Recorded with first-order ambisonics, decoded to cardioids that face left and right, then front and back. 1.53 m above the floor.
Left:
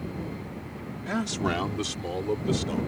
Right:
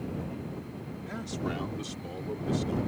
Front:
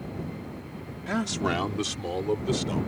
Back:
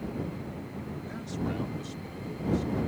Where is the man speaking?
35° left; by 2.8 s 30° left.